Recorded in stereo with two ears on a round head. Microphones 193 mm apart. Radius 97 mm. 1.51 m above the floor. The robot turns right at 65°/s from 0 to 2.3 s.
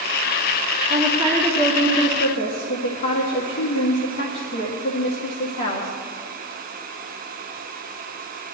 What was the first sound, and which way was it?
A woman speaking, 25° right.